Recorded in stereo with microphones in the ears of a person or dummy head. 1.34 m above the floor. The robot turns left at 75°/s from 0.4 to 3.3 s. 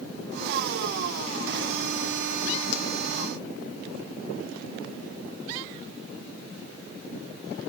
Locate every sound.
2.7 s a pop: 50° left (ahead or behind), 0.6 m